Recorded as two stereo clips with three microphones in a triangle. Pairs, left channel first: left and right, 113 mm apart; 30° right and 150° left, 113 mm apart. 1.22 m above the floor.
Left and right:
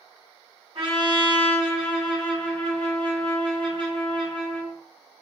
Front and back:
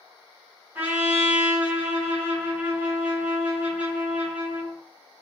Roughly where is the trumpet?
Behind right.